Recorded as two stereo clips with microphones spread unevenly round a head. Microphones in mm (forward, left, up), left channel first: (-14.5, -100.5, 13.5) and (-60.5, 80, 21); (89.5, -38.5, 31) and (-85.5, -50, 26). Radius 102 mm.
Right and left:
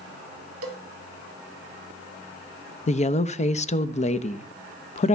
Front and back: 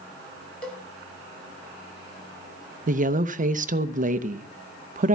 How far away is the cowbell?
About 1.4 m.